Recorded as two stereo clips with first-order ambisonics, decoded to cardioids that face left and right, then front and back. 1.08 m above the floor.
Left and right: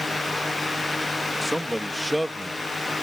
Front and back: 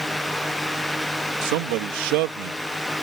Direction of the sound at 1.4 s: Straight behind.